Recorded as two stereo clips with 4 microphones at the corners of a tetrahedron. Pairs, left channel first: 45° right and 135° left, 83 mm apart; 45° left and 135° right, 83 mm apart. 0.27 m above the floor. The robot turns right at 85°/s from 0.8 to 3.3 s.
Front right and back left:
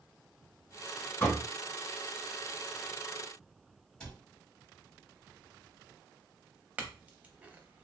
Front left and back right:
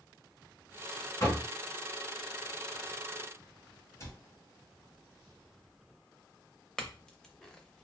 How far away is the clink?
About 0.5 m.